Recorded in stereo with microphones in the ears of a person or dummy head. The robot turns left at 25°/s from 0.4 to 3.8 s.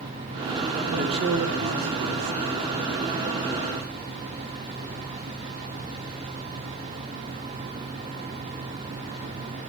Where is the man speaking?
50° right, 1.8 m; by 2.4 s 90° right, 1.8 m.